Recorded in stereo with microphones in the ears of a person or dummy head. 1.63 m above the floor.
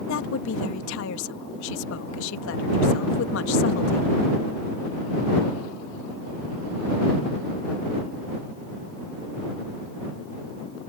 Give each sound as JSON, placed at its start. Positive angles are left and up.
{"t": 0.1, "sound": "a woman speaking", "side_deg": 70}